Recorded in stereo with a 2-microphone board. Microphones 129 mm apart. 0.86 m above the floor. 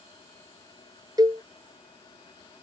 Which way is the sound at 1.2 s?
30° right (ahead or behind).